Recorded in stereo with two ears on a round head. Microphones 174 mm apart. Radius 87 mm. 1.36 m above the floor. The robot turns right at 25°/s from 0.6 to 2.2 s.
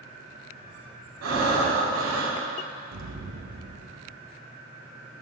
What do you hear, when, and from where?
1.2 s breathing: 90° right, 3.5 m; by 2.4 s 65° right (ahead or behind), 3.5 m
2.9 s an explosion: 75° right (ahead or behind), 1.3 m